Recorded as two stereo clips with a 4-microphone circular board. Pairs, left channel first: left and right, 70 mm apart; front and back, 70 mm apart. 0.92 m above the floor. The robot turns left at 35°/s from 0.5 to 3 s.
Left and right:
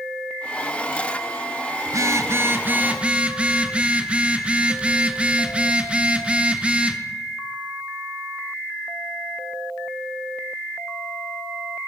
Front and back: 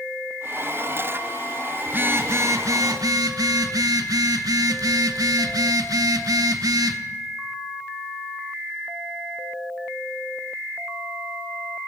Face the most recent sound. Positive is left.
turn(degrees=-160)